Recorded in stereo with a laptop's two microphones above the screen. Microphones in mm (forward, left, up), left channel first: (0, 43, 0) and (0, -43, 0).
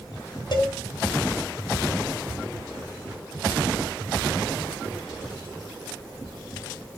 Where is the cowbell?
55° left (ahead or behind), 2.5 m.